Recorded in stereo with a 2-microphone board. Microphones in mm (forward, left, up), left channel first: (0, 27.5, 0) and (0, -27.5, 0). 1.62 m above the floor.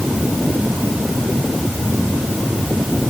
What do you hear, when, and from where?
Only background noise.